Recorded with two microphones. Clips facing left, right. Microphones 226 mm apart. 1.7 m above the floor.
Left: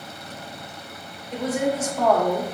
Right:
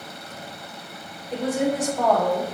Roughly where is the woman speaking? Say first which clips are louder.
Right 1 dB; right.